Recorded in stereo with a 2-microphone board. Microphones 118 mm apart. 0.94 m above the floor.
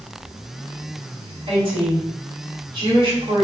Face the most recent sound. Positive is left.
turn(degrees=-55)  # may be behind; listen again after turning